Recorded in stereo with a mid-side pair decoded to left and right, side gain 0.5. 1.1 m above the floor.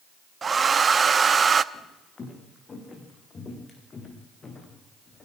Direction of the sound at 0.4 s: 35° right.